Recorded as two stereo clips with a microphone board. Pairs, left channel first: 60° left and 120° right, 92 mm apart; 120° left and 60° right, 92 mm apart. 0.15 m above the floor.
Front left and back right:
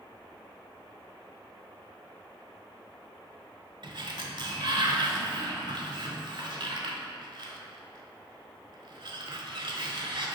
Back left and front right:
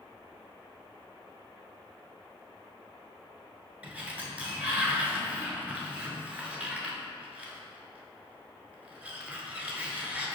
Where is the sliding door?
130° right, 0.5 m.